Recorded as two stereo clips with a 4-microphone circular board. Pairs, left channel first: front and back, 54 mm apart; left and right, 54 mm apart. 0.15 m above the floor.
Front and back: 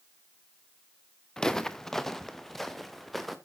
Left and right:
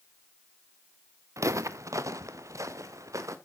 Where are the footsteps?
80° right, 0.7 m; by 3.4 s 90° right, 1.8 m.